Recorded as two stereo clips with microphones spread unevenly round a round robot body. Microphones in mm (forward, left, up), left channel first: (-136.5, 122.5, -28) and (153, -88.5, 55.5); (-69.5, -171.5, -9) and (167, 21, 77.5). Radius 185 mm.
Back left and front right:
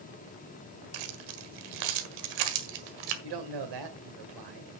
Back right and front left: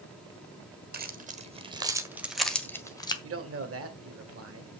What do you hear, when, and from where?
0.9 s keys jangling: 25° right, 1.8 m; by 3.1 s 70° right, 1.9 m
3.2 s a man speaking: 10° right, 2 m